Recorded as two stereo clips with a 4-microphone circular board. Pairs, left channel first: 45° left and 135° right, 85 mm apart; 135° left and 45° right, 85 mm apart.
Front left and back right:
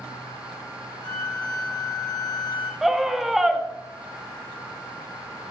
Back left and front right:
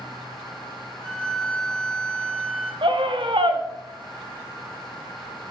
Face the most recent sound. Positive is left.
turn(degrees=-50)